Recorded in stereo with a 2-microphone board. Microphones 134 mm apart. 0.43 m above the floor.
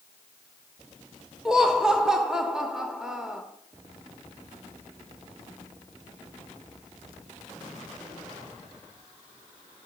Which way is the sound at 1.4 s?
5° right (ahead or behind).